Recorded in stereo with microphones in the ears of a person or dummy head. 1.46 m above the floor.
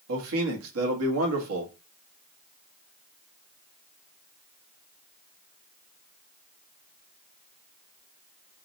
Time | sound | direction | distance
0.1 | a man speaking | 85° right | 1.1 m